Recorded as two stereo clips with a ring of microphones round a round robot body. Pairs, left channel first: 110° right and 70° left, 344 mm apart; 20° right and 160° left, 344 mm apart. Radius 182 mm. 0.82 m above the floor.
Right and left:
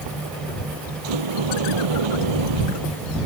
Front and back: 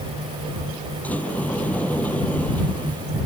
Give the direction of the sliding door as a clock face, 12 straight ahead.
10 o'clock.